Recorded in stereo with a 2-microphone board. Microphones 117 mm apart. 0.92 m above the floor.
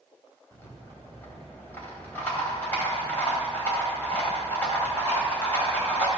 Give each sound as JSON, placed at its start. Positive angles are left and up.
{"t": 0.5, "sound": "a rattle", "side_deg": 15, "distance_m": 2.5}